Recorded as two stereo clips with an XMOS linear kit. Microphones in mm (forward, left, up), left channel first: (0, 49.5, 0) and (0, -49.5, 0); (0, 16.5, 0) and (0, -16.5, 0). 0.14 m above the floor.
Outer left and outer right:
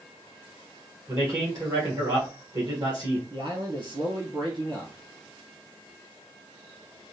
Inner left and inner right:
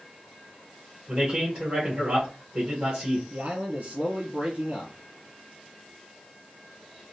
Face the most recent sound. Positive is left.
turn(degrees=-50)  # may be behind; listen again after turning